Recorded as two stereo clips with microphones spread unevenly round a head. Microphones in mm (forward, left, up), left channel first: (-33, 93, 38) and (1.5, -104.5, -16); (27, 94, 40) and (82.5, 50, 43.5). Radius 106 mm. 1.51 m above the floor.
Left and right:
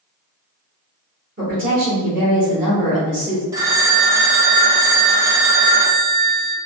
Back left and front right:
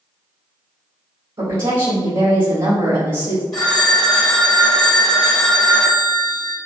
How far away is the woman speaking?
About 1.5 m.